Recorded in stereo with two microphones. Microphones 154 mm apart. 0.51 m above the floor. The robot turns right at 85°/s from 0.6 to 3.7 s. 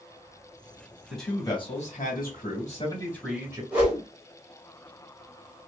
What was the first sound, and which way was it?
A man speaking, 5° right.